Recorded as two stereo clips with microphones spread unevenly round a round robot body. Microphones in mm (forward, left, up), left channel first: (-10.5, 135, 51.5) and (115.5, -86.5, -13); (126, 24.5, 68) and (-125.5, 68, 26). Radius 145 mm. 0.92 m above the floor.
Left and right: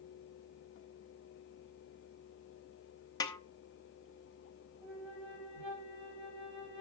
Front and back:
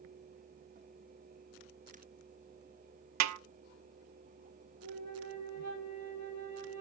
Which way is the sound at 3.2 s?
160° right.